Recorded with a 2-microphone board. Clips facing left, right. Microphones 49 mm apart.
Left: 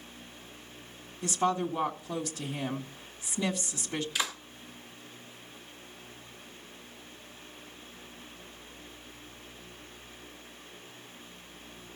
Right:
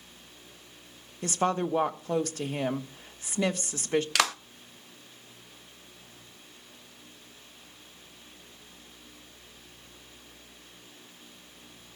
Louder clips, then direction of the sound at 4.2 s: Right 6 dB; 70° right (ahead or behind).